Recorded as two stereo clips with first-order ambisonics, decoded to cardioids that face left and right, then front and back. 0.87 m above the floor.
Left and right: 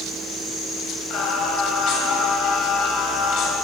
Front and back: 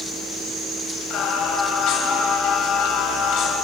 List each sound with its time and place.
1.1 s singing: 45° left, 3.5 m